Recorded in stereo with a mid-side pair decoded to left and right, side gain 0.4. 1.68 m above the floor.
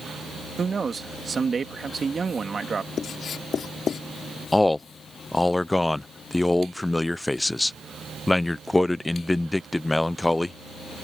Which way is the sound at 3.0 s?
60° left.